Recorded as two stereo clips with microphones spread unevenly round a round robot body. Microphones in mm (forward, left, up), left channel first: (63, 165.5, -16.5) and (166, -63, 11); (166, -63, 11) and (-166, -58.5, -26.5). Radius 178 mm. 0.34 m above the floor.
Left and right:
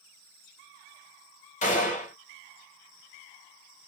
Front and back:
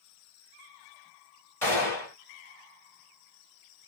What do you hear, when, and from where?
1.6 s a gunshot: 90° left, 1.0 m